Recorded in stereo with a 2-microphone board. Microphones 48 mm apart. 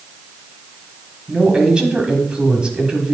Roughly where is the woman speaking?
Centre.